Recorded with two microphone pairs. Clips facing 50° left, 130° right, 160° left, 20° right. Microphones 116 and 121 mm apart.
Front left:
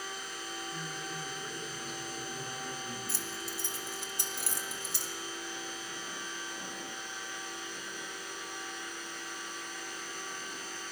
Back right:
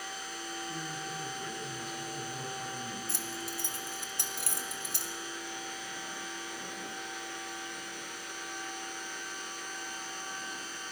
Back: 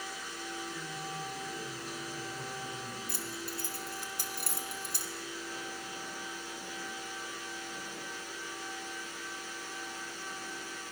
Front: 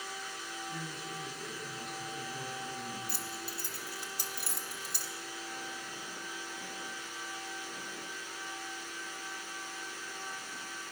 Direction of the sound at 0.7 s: 110° right.